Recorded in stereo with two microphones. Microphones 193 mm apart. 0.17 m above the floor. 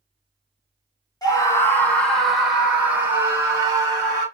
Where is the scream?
20° left (ahead or behind), 1.1 m; by 4.3 s 20° right (ahead or behind), 1.8 m.